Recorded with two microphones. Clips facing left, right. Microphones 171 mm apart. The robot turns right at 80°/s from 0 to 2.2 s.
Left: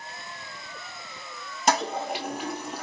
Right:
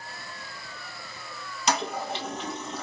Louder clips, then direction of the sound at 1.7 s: Left 3 dB; 55° left (ahead or behind).